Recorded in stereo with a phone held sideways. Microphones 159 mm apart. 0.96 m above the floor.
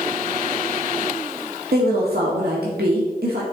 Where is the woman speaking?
80° right, 1.6 m.